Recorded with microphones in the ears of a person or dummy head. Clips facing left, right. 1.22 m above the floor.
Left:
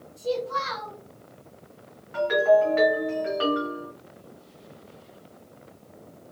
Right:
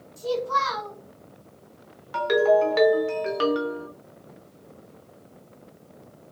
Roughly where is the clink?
I don't hear a clink.